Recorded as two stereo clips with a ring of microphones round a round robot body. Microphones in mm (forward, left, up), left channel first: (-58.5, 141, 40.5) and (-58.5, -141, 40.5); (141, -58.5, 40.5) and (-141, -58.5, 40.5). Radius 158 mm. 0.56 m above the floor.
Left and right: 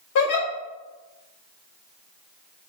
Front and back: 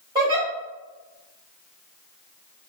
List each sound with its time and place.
0.1 s a giggle: 105° left, 1.9 m